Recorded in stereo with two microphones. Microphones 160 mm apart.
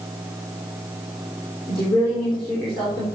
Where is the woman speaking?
35° left (ahead or behind), 5 m.